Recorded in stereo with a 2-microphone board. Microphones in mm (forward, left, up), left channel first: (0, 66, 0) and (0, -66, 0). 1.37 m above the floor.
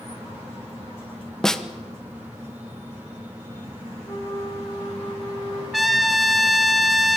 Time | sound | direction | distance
1.4 | a snare drum | 5° left (ahead or behind) | 1.2 m
4.0 | a flute | 35° left (ahead or behind) | 1.6 m
5.7 | a trumpet | centre (ahead or behind) | 1.6 m